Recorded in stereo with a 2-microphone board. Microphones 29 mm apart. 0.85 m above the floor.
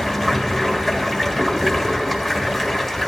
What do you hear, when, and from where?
0.0 s running water: 10° left (ahead or behind), 1.5 m